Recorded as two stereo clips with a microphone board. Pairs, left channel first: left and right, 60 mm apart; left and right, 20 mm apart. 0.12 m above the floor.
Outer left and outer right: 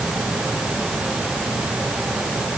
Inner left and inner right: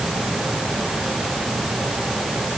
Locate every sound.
Only background noise.